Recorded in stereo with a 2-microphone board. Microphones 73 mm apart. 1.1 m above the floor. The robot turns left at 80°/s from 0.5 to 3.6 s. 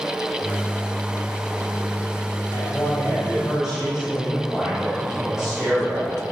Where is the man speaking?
80° left, 5 m; by 6.2 s 5° right, 5 m.